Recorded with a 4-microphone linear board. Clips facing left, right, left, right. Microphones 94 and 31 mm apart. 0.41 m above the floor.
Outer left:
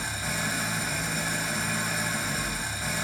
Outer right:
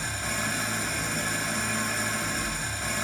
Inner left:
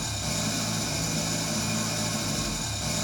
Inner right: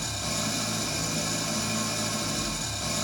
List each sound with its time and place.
0.0 s an engine running: 5° left (ahead or behind), 0.7 m